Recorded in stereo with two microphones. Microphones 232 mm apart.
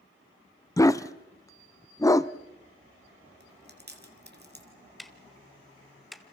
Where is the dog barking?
15° left (ahead or behind), 0.6 m.